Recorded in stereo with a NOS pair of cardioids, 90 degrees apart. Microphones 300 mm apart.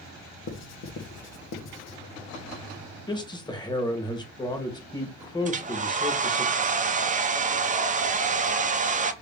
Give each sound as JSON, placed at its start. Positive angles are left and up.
{"t": 0.5, "sound": "writing", "azimuth_deg": 60, "distance_m": 1.1}
{"t": 3.1, "sound": "a man speaking", "azimuth_deg": 15, "distance_m": 1.4}
{"t": 5.5, "sound": "a hair dryer", "azimuth_deg": -25, "distance_m": 0.7}